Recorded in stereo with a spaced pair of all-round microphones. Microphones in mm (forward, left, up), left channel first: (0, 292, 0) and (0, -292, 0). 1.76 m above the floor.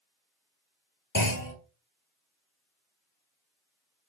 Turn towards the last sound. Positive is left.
turn(degrees=30)  # may be behind; listen again after turning